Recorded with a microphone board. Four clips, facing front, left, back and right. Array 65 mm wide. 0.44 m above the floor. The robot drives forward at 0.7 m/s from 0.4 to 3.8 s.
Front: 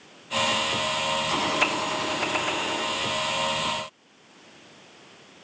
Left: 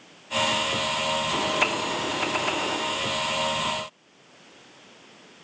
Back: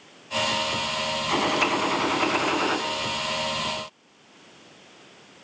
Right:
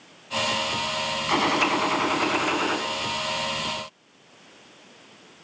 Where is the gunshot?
100° right, 1.4 m; by 2.8 s 135° right, 1.9 m.